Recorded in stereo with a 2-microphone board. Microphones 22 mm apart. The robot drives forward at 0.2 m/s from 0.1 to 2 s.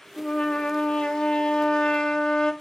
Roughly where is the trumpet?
Left.